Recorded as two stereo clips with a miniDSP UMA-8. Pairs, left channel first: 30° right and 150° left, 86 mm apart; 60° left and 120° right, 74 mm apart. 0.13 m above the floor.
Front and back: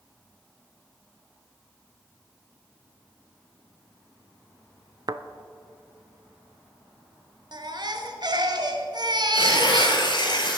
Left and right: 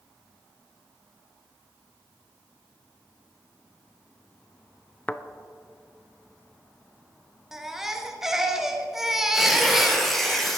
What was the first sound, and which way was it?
A thud, 130° left.